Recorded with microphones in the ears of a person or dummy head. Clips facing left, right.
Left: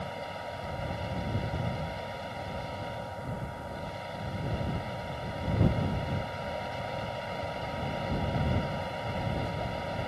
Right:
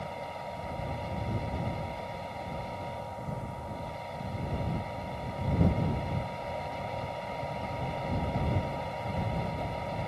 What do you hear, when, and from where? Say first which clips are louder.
0.0 s a machine running: left 1 dB; 10° left (ahead or behind)